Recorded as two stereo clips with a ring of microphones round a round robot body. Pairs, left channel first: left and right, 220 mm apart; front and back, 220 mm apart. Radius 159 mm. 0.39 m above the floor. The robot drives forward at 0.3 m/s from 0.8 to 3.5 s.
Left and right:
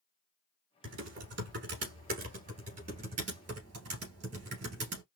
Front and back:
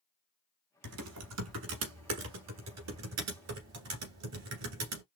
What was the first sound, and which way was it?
Typing on a keyboard, 145° right.